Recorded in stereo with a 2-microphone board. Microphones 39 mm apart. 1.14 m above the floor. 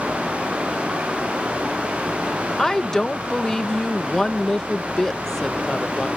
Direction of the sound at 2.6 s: 10° left (ahead or behind).